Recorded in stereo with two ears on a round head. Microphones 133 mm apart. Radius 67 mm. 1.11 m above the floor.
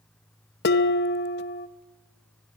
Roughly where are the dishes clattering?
Left.